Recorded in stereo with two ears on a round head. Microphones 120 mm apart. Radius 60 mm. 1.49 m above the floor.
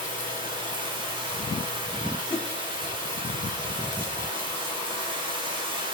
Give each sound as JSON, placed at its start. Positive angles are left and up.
{"t": 0.0, "sound": "running water", "side_deg": -40, "distance_m": 3.5}
{"t": 2.3, "sound": "a whoosh", "side_deg": 5, "distance_m": 0.8}